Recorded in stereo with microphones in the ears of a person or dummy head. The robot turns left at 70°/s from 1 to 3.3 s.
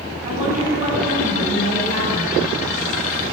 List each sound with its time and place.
0.2 s a woman speaking: 45° right, 9 m; by 2.5 s 155° right, 9 m